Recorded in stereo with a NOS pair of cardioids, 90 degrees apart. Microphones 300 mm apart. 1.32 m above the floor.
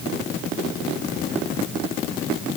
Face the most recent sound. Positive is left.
No sound to turn to.